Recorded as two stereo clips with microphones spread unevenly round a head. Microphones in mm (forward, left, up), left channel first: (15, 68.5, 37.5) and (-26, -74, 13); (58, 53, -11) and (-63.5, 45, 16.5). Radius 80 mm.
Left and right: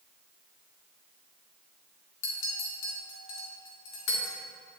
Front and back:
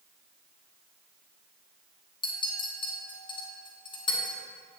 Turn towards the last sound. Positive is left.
turn(degrees=60)